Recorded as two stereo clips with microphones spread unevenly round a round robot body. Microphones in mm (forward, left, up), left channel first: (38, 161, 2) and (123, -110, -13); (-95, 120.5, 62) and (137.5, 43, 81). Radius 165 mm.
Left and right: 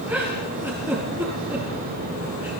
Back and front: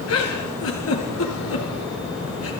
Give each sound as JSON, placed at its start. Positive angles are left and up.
{"t": 0.1, "sound": "a giggle", "azimuth_deg": -155, "distance_m": 4.5}